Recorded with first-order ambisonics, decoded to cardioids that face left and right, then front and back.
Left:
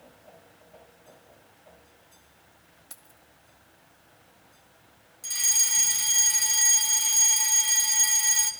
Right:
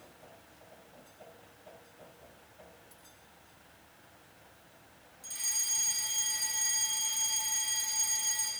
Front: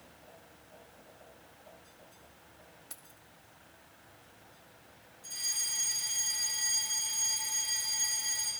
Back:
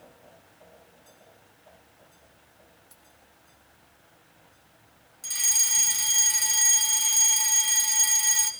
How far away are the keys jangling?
About 1.6 m.